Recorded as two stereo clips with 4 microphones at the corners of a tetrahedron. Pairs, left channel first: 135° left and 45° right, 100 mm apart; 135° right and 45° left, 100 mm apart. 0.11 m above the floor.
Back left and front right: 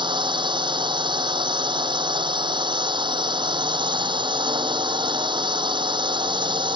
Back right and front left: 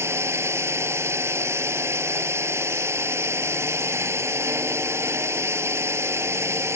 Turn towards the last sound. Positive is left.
turn(degrees=-15)